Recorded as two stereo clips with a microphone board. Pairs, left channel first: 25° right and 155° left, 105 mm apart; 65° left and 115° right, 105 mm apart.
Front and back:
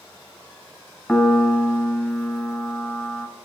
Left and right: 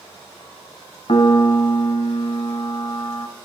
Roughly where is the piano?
Ahead left.